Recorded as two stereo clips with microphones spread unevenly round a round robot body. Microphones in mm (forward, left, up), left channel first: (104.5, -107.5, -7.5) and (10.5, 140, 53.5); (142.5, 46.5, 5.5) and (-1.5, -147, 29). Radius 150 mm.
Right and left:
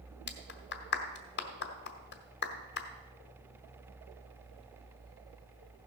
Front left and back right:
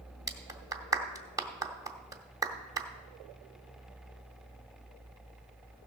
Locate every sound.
0.3 s a clap: 50° right, 1.6 m